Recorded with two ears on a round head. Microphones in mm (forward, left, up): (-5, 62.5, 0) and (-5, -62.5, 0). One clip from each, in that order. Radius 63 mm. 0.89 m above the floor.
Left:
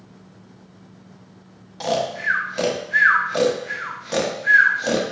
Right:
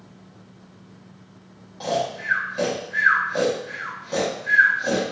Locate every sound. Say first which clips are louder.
1.8 s snoring: left 3 dB; 40° left (ahead or behind), 0.6 m